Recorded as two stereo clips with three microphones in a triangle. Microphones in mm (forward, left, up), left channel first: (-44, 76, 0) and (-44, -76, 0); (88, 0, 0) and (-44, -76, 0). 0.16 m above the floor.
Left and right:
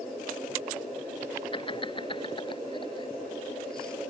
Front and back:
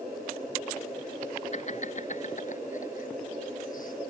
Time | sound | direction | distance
1.5 | laughter | 45° left | ?